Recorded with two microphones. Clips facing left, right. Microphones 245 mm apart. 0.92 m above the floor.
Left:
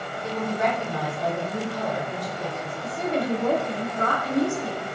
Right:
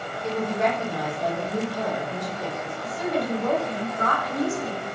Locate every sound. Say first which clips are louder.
0.2 s a woman speaking: right 1 dB; 15° right (ahead or behind), 1.5 m
2.8 s a woman speaking: left 1 dB; 30° left (ahead or behind), 0.7 m